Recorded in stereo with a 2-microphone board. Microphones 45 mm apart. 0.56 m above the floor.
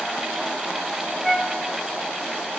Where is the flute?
5° right (ahead or behind), 1.6 m.